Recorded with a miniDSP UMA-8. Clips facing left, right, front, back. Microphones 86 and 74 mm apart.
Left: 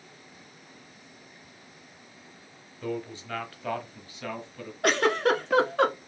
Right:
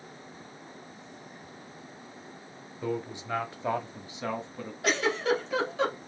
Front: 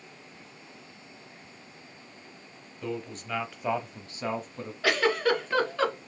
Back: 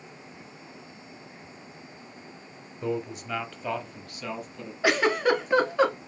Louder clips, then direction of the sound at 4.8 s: Left 4 dB, back 2 dB; 110° left.